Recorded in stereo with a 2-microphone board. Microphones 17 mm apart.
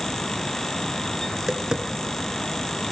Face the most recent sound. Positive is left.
turn(degrees=-45)  # may be behind; listen again after turning